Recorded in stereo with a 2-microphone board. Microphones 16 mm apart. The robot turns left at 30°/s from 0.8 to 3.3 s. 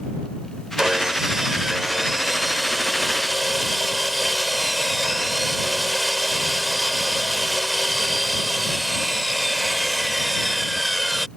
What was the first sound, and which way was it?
Sawing, 105° right.